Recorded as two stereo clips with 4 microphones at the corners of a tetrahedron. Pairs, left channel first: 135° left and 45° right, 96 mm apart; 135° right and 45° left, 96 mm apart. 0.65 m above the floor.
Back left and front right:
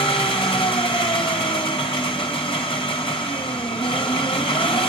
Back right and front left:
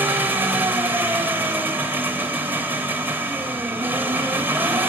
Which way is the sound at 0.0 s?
115° left.